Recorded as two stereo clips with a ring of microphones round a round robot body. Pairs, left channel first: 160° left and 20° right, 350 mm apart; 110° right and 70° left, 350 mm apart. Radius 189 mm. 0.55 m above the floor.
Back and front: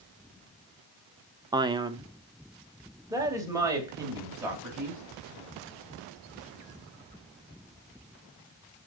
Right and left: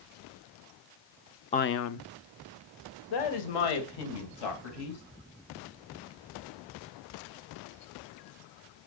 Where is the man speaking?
80° right, 0.6 m; by 5.0 s 105° right, 4 m.